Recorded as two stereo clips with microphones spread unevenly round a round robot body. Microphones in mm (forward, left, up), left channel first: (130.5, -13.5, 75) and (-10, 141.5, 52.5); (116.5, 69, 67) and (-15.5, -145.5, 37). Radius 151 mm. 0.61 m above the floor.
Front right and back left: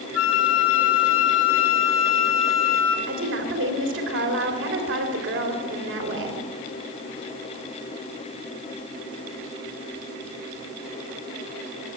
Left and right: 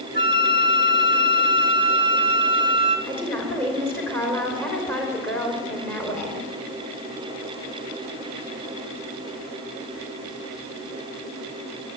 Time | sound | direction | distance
0.1 | a flute | 50° right | 2.5 m
3.1 | a woman speaking | 145° left | 3 m